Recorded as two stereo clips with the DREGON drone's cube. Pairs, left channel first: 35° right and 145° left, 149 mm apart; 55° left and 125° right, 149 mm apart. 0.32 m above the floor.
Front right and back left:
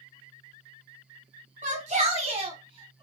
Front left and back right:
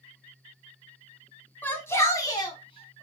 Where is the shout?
130° left, 1.8 m; by 3.0 s 95° left, 1.8 m.